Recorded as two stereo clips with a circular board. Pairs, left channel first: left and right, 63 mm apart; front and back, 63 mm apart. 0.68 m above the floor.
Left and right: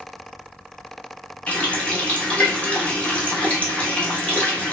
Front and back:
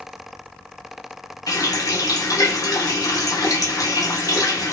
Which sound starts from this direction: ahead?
A running tap, at 1.5 s.